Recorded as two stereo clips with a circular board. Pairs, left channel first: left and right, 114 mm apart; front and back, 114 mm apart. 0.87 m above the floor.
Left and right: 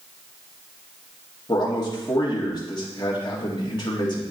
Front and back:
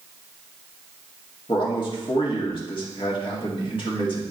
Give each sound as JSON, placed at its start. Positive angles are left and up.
{"t": 1.5, "sound": "a man speaking", "azimuth_deg": 40, "distance_m": 1.7}